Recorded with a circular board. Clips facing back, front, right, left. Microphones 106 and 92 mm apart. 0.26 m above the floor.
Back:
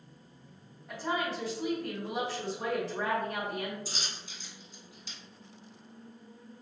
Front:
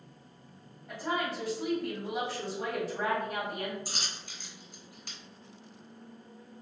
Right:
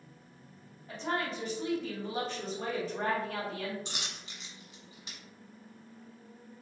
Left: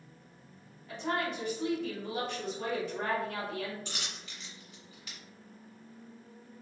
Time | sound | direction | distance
0.9 | a woman speaking | 85° right | 1.8 m
3.9 | a dropped coin | 30° right | 1.1 m